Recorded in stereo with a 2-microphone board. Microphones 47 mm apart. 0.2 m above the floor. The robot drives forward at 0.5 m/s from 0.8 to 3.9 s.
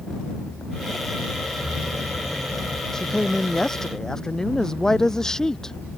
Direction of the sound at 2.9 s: 10° left (ahead or behind).